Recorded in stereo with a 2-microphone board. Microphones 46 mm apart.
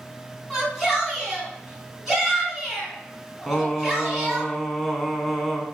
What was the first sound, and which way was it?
A shout, 5° right (ahead or behind).